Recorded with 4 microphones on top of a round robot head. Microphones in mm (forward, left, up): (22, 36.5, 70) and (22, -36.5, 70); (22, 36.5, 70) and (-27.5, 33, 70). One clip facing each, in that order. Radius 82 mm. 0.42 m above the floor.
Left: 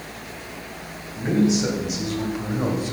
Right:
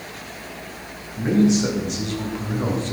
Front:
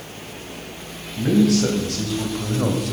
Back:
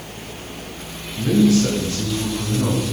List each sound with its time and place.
1.2 s a man speaking: 5° left, 4 m; by 2.9 s 10° left, 2.5 m